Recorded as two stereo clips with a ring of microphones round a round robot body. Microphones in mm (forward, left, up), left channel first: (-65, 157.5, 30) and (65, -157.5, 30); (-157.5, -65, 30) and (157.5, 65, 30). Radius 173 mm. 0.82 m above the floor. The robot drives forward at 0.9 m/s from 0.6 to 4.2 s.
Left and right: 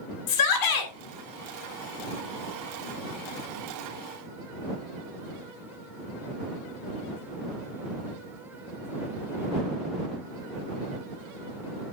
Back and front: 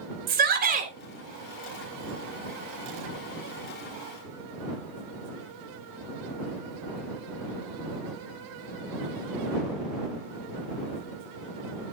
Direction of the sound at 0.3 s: 85° left.